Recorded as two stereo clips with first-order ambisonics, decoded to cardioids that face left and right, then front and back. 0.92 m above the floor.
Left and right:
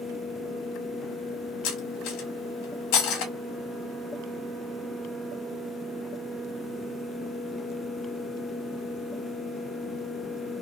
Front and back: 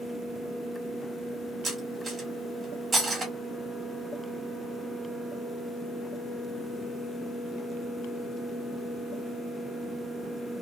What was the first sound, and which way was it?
Cutlery clinking, 105° left.